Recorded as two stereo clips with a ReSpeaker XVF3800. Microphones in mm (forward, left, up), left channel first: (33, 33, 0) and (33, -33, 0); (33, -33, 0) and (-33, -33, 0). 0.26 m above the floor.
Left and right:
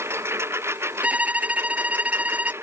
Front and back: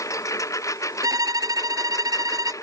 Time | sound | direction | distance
0.0 | a lawn mower | 40° right | ?
1.0 | a violin | 160° right | ?